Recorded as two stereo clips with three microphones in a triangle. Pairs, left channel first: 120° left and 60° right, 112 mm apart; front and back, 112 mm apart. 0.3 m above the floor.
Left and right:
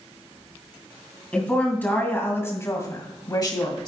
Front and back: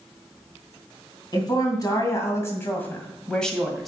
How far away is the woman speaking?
About 2.5 m.